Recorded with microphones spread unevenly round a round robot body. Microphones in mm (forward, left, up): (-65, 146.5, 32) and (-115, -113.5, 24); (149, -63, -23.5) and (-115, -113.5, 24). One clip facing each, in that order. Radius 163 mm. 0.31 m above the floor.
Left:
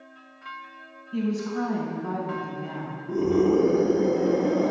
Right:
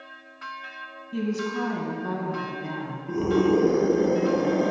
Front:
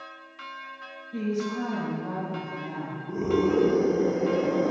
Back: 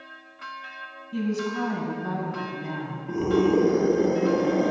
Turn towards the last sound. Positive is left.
turn(degrees=-145)